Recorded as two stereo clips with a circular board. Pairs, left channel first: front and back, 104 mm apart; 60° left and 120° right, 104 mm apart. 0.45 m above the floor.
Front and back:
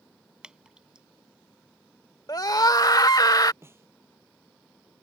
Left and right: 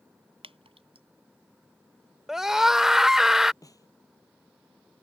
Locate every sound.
0.4 s dripping: 100° right
2.3 s a scream: 35° right
3.6 s a snare drum: 115° left